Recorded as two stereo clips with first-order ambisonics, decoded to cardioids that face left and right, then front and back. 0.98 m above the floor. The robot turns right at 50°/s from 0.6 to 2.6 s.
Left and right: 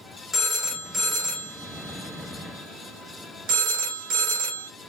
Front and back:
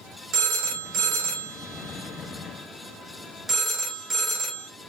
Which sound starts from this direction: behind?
A phone ringing, at 0.3 s.